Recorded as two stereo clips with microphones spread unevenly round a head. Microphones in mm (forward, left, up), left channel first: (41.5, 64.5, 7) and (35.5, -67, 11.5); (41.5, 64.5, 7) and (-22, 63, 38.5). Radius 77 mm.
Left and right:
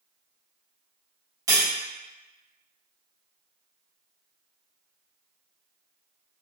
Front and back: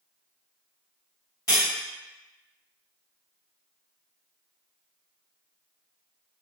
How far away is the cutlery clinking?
About 1.0 m.